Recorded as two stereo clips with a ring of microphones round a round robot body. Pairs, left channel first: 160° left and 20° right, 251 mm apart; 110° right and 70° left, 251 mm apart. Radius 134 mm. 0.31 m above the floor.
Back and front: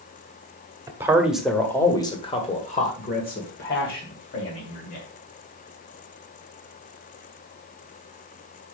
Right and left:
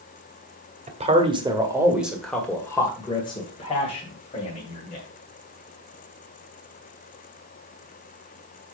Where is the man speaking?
45° left, 1.7 m; by 5.0 s 165° right, 3 m.